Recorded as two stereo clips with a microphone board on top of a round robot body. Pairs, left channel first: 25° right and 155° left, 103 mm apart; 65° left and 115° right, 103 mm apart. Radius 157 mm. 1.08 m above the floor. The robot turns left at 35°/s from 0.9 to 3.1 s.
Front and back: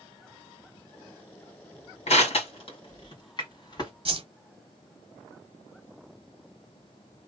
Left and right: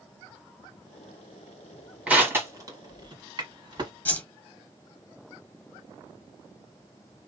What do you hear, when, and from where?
2.1 s crushing: 35° right, 2.5 m; by 3.9 s 70° right, 2.5 m
4.0 s a whoosh: 140° left, 1.1 m